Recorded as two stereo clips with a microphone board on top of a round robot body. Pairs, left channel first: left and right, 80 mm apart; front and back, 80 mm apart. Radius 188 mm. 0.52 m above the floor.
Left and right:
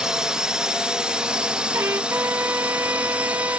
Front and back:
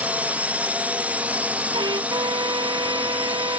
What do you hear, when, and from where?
0.0 s a drone: 155° right; by 3.6 s 140° right
1.7 s a trumpet: 155° right